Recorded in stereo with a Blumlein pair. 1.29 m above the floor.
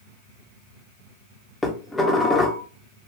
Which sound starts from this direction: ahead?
Dishes clattering, at 1.6 s.